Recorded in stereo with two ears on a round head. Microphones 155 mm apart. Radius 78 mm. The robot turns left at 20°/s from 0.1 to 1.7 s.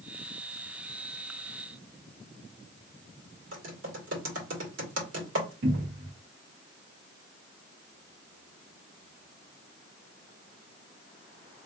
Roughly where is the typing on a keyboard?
Right.